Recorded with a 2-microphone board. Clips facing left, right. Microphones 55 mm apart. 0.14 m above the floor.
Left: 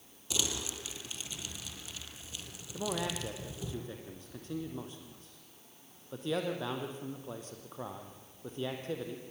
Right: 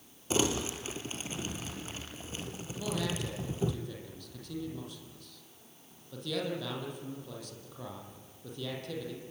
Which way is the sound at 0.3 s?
35° right (ahead or behind).